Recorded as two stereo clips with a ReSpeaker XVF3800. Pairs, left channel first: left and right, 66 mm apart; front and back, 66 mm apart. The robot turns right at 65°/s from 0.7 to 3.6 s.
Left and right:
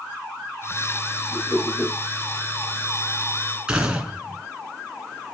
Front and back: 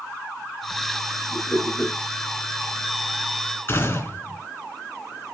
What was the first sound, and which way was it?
A whoosh, 60° right.